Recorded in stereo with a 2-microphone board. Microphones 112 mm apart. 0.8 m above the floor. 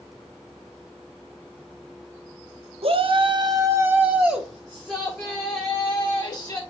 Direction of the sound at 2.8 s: 60° right (ahead or behind).